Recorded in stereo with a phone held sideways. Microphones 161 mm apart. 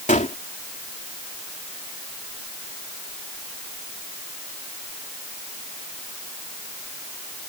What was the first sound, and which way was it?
A gunshot, 50° left (ahead or behind).